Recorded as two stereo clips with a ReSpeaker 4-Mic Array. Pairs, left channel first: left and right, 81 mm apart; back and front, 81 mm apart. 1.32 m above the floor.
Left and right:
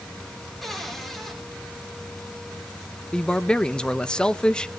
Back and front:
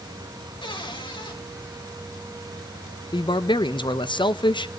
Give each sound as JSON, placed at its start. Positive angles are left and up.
{"t": 0.6, "sound": "a cupboard door", "azimuth_deg": 180, "distance_m": 4.5}
{"t": 3.1, "sound": "a man speaking", "azimuth_deg": 170, "distance_m": 0.9}